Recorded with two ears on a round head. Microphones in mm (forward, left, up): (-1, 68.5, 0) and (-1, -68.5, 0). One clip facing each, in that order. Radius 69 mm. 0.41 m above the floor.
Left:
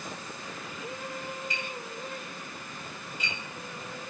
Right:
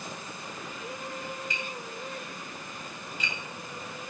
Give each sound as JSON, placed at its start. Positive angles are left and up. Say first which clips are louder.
{"t": 1.5, "sound": "tapping", "louder": "even", "side_deg": -65, "distance_m": 3.0}